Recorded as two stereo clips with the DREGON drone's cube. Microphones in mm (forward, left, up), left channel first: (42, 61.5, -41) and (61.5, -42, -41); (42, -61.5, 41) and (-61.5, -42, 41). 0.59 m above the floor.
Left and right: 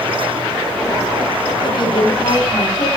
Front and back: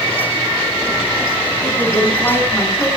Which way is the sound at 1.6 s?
60° left.